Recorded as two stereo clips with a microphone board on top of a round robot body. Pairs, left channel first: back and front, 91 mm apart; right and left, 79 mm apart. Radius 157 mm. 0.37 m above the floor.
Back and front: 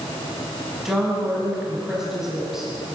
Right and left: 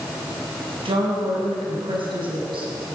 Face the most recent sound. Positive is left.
turn(degrees=90)